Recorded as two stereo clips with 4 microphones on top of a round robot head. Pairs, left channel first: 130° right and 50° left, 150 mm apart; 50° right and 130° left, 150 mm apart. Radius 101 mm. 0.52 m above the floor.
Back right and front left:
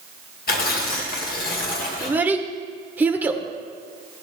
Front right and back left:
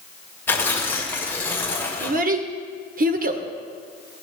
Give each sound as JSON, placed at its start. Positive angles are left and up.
{"t": 0.5, "sound": "tearing paper", "azimuth_deg": -125, "distance_m": 2.5}
{"t": 2.0, "sound": "a child speaking", "azimuth_deg": 125, "distance_m": 1.6}